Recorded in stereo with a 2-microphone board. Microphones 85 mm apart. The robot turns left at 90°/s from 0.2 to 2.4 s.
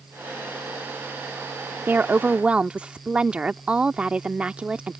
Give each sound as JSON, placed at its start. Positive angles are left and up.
{"t": 1.9, "sound": "a woman speaking", "side_deg": -25}